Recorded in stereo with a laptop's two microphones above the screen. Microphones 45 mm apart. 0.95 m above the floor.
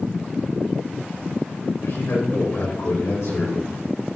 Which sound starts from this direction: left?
A man speaking, at 1.8 s.